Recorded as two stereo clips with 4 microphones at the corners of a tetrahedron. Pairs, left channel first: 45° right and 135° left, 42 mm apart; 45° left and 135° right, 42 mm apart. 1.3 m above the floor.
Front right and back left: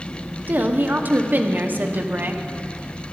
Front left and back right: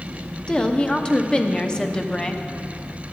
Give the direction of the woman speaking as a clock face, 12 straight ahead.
8 o'clock.